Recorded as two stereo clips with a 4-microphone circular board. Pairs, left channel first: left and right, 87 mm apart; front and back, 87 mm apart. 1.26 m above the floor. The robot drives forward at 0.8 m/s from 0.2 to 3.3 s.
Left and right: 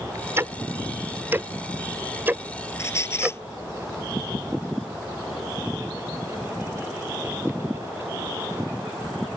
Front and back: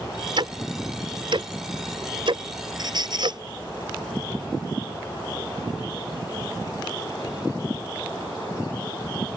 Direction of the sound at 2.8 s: 145° left.